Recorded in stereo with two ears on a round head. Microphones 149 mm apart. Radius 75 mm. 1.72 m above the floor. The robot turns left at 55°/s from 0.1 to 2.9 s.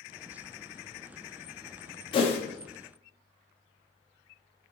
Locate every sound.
2.1 s a whoosh: 30° left (ahead or behind), 0.6 m; by 2.4 s 40° left (ahead or behind), 0.6 m